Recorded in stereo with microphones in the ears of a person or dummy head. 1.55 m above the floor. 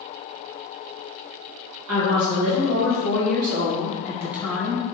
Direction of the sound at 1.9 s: 80° right.